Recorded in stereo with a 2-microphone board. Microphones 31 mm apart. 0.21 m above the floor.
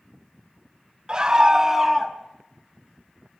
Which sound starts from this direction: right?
A scream, at 1.1 s.